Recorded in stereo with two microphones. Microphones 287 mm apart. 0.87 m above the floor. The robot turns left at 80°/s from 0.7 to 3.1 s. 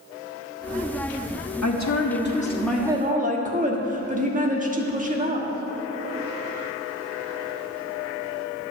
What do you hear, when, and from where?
1.6 s a woman speaking: 90° left, 1.3 m; by 5.5 s 30° right, 1.3 m